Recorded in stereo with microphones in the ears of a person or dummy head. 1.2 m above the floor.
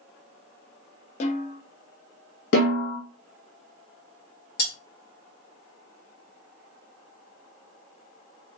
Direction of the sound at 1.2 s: 40° left (ahead or behind).